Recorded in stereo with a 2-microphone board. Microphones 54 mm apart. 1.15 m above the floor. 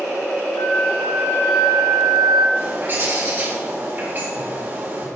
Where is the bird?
40° right (ahead or behind), 4 m.